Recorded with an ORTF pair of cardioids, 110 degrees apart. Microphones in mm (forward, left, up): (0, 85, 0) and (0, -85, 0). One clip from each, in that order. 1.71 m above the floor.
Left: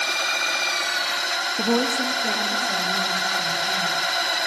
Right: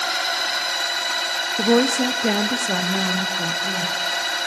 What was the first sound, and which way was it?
A woman speaking, 10° right.